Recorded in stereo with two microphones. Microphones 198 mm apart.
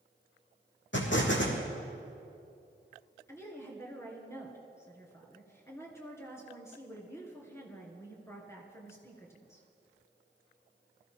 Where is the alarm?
No alarm in this recording.